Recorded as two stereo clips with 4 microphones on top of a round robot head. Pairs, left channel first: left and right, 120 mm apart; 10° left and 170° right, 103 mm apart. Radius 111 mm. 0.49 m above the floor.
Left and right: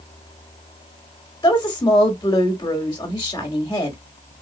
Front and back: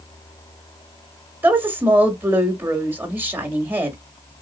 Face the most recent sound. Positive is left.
turn(degrees=130)